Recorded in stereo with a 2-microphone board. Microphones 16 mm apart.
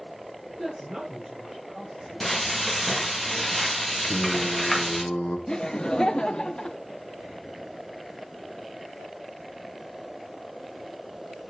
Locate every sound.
0.5 s a woman speaking: 30° right (ahead or behind), 5 m
2.2 s frying: 5° left (ahead or behind), 1.7 m
4.0 s singing: 75° left (ahead or behind), 1.2 m
5.5 s laughter: 55° left (ahead or behind), 0.6 m